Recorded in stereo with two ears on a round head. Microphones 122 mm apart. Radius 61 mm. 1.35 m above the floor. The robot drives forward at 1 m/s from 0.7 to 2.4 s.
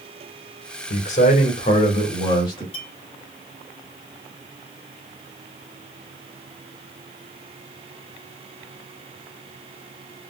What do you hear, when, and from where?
0.9 s a man speaking: 65° left (ahead or behind), 1.6 m; by 2.6 s 35° left (ahead or behind), 2.5 m
2.7 s a clink: 40° left (ahead or behind), 3 m